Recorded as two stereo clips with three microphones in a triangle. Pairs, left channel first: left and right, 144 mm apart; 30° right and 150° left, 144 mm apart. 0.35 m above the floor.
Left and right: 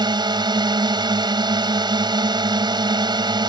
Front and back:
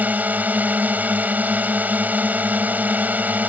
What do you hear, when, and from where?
0.0 s a drone: 135° right